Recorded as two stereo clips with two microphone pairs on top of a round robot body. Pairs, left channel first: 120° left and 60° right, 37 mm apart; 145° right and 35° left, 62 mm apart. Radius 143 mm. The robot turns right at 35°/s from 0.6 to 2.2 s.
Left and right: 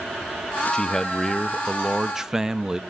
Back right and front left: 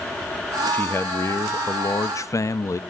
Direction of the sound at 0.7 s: 160° left.